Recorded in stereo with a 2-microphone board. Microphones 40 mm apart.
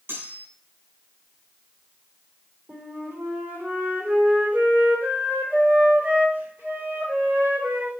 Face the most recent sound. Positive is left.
turn(degrees=-70)  # may be behind; listen again after turning